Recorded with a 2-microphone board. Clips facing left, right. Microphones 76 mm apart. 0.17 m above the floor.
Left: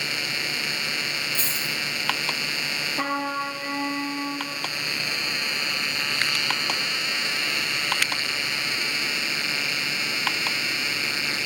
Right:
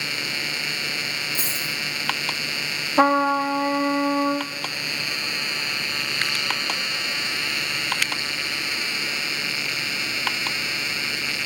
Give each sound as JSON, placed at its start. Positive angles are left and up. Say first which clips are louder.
{"t": 1.4, "sound": "a dropped coin", "louder": "even", "side_deg": -15, "distance_m": 4.5}
{"t": 3.0, "sound": "a trumpet", "louder": "right 10 dB", "side_deg": -55, "distance_m": 1.7}